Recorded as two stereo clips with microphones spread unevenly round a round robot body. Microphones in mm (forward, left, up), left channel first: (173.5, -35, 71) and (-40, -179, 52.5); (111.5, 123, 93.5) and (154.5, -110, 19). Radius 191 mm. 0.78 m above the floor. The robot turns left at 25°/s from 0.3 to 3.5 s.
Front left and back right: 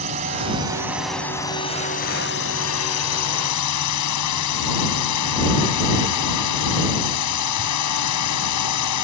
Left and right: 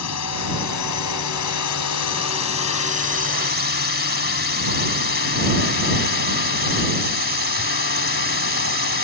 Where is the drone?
145° left; by 9.0 s 65° left.